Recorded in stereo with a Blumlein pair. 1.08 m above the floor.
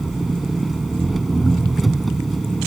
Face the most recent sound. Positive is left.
turn(degrees=-10)